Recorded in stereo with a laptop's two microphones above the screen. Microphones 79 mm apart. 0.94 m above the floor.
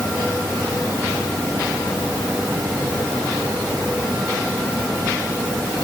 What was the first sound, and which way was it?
Only background noise.